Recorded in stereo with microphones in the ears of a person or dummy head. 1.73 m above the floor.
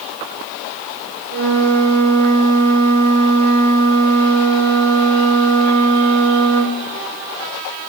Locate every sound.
1.3 s a flute: 70° right (ahead or behind), 2.5 m